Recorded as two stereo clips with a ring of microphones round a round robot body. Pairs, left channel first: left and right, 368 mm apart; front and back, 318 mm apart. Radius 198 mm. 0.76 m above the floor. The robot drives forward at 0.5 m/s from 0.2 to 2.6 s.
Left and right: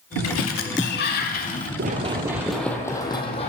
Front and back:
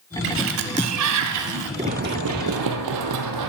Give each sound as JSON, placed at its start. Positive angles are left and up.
{"t": 0.2, "sound": "a sliding door", "azimuth_deg": 135, "distance_m": 0.8}
{"t": 1.8, "sound": "running footsteps", "azimuth_deg": -115, "distance_m": 0.8}